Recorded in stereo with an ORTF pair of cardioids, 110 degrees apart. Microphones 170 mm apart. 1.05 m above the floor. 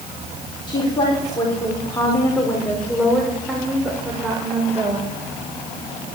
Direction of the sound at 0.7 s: 30° left.